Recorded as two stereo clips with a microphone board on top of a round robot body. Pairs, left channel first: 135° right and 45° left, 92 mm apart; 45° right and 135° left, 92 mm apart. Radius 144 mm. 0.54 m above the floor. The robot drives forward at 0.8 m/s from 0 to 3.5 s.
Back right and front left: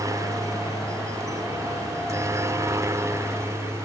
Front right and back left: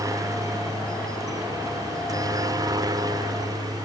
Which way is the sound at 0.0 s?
90° left.